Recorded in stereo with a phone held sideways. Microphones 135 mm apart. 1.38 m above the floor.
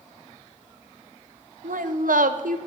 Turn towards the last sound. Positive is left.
turn(degrees=-85)